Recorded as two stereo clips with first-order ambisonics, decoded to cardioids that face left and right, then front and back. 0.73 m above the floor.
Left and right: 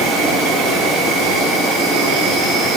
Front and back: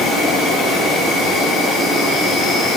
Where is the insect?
60° right, 4 m.